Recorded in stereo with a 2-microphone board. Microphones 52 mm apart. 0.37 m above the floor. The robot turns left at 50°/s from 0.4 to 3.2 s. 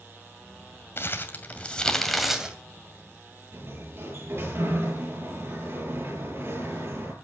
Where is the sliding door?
60° right (ahead or behind), 7.5 m.